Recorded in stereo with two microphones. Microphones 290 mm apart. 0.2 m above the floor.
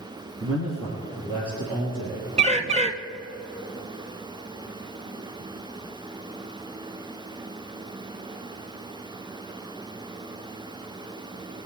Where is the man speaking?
50° right (ahead or behind), 2.5 m; by 2.3 s 65° right (ahead or behind), 5.5 m.